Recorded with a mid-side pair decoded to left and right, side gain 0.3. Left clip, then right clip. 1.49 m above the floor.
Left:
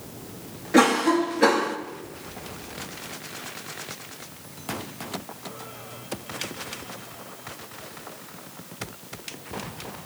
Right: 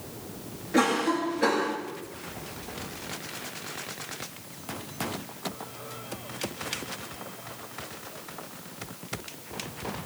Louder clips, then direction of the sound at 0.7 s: Left 5 dB; 60° left.